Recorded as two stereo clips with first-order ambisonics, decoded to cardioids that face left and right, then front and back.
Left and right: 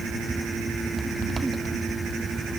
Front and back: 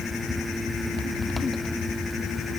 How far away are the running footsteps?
I don't hear running footsteps.